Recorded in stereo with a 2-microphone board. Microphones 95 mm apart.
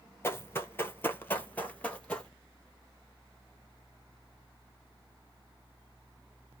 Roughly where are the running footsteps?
Left.